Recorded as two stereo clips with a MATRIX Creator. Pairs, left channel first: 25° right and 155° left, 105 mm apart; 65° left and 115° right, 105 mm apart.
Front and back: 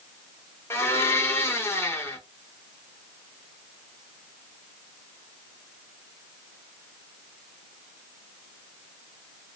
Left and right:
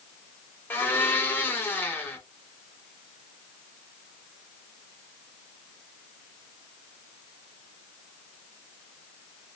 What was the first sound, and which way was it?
A blender, 15° left.